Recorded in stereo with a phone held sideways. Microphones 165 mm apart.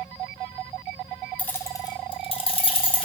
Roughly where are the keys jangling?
Centre.